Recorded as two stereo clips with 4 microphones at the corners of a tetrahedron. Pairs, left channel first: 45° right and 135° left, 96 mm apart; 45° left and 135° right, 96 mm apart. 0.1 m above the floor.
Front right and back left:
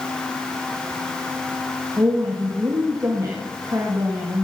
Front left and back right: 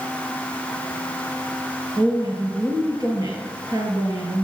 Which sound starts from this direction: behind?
A woman speaking, at 2.0 s.